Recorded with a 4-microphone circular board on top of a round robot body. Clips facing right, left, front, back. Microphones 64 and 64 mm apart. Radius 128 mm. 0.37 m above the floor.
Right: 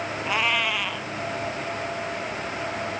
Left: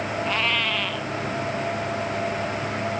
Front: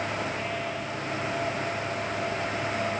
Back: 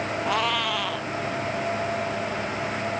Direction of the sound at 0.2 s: 170° right.